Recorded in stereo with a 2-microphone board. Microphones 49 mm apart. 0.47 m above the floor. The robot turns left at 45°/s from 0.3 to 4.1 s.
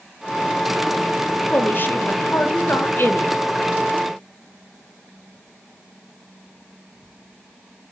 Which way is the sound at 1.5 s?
135° left.